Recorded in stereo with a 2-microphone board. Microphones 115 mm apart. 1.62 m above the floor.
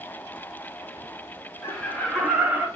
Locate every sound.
1.6 s laughter: 25° left (ahead or behind), 0.9 m; by 2.7 s 25° right (ahead or behind), 0.8 m